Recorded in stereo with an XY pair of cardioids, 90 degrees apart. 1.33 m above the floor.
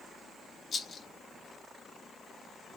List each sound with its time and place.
0.7 s a rattle: 60° left, 0.9 m